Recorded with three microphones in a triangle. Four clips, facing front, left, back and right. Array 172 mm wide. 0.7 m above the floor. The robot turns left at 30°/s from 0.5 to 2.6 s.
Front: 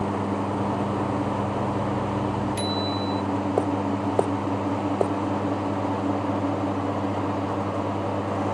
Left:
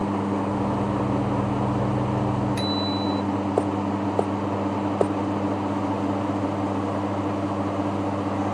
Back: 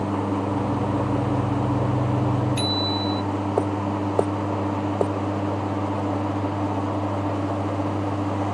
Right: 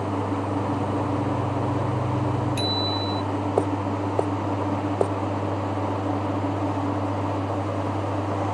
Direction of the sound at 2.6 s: 145° left.